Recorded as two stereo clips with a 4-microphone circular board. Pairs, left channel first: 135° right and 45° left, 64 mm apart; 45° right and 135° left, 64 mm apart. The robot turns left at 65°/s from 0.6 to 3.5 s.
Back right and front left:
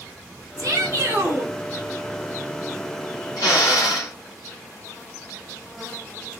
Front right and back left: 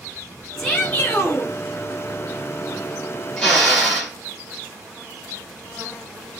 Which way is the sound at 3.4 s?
130° right.